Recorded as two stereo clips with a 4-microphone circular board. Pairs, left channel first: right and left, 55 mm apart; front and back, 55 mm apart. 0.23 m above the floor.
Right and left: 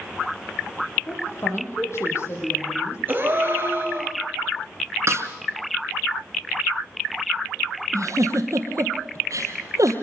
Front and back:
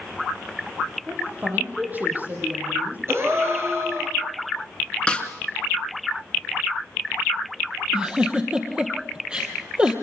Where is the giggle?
110° left, 2.5 m.